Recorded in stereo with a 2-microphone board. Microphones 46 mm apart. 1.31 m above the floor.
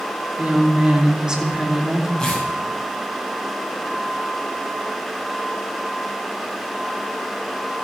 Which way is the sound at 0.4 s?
30° right (ahead or behind).